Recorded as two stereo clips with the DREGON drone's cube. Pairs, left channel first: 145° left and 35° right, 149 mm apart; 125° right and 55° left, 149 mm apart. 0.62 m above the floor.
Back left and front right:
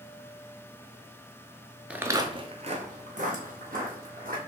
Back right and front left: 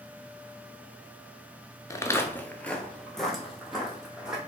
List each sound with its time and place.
1.9 s footsteps: 105° right, 0.6 m; by 4.4 s 30° right, 1.7 m